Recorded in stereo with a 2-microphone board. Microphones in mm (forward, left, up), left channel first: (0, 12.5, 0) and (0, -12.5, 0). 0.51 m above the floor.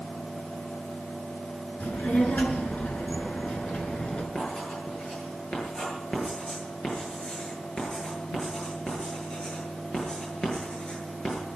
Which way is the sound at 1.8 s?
75° left (ahead or behind).